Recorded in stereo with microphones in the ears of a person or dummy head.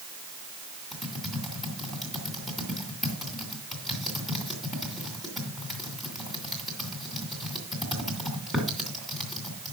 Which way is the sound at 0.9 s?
Centre (ahead or behind).